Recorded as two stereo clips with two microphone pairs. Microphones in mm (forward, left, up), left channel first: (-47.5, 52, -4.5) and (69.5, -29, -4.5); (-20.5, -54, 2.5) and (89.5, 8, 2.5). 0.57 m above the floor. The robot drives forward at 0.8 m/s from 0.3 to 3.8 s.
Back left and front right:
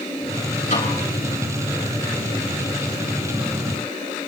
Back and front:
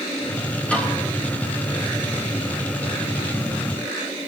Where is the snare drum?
125° left, 7.5 m; by 1.0 s 130° left, 7.5 m.